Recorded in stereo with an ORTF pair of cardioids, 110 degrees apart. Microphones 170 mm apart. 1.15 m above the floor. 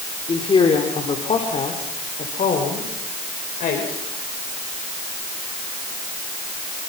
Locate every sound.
0.3 s a woman speaking: 30° left, 4 m; by 4.0 s 55° left, 6 m